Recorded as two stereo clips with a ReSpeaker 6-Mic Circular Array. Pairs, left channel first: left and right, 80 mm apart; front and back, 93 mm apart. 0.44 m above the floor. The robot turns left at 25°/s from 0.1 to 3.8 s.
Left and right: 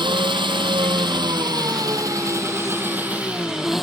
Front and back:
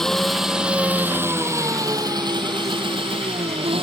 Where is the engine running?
85° right; by 3.8 s straight behind.